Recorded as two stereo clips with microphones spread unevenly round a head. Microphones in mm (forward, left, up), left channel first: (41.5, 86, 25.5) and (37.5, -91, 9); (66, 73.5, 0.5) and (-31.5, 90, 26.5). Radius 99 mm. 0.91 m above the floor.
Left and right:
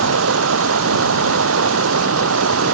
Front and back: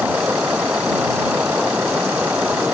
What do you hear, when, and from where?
0.0 s running water: 105° right